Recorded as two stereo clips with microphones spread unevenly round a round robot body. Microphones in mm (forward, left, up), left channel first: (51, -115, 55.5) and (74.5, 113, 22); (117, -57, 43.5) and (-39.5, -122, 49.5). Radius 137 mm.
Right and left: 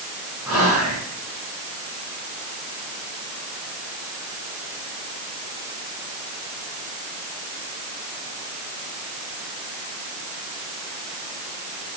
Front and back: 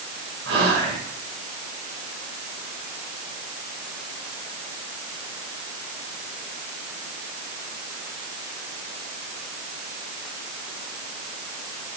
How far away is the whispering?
About 5 m.